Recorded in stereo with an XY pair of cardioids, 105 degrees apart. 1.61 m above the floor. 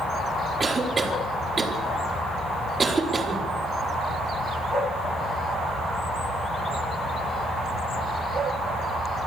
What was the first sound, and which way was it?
A cough, 30° right.